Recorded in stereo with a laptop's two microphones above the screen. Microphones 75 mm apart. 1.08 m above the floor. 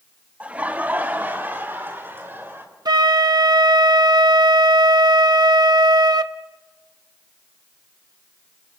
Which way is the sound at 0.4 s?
20° right (ahead or behind).